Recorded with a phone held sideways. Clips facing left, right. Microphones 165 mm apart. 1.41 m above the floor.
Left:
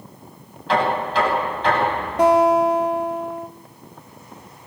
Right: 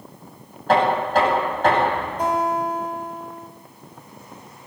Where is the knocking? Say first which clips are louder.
Right 2 dB; 50° right (ahead or behind), 10 m.